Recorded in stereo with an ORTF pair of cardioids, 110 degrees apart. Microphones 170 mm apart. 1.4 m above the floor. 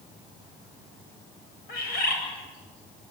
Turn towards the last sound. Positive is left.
turn(degrees=65)